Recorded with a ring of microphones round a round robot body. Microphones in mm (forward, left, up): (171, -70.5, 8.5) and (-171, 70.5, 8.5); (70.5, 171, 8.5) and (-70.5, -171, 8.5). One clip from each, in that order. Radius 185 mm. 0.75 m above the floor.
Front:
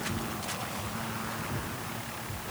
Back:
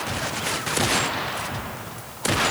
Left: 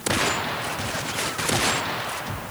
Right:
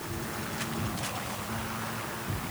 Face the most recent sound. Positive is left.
No sound to turn to.